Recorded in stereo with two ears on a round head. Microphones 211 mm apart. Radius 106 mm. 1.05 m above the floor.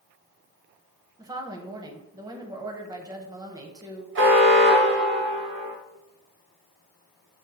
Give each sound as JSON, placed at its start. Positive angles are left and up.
{"t": 1.2, "sound": "a woman speaking", "side_deg": -15, "distance_m": 0.5}
{"t": 4.2, "sound": "an alarm", "side_deg": -50, "distance_m": 0.8}